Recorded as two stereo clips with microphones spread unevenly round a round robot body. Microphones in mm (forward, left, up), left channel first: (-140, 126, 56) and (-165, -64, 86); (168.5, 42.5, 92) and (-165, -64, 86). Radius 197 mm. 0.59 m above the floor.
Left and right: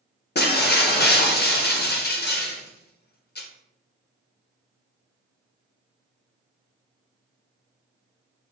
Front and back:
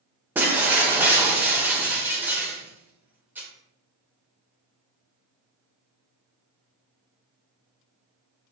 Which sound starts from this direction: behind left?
Breaking glass, at 0.3 s.